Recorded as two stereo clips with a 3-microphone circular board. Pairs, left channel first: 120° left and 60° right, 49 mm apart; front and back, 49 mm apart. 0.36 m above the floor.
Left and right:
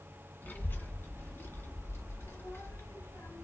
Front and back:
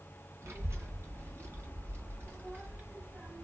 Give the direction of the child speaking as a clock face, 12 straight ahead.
7 o'clock.